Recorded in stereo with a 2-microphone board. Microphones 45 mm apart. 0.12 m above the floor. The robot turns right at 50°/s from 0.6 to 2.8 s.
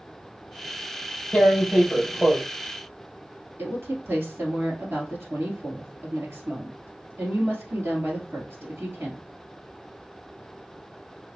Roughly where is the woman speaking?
Right.